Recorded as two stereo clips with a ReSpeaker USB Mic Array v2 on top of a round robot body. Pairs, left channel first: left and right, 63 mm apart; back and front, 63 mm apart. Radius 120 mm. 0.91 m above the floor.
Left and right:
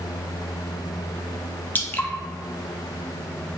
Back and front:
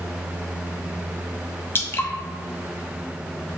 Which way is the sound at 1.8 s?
140° left.